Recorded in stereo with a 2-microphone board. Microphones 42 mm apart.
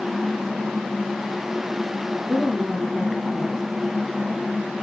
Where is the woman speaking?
10° left (ahead or behind), 1.9 m.